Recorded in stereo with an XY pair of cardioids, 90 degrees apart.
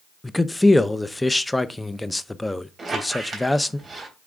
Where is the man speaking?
10° left, 0.7 m.